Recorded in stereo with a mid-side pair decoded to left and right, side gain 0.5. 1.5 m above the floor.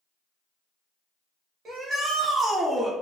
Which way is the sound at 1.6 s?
50° right.